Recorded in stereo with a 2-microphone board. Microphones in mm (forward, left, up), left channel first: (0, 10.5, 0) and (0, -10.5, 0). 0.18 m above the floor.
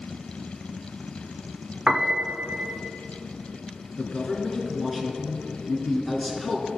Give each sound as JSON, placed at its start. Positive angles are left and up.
{"t": 1.9, "sound": "a piano", "side_deg": -45, "distance_m": 0.6}
{"t": 4.0, "sound": "a man speaking", "side_deg": 0, "distance_m": 2.0}